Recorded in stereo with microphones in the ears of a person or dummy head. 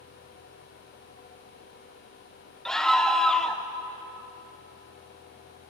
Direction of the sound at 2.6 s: 5° left (ahead or behind).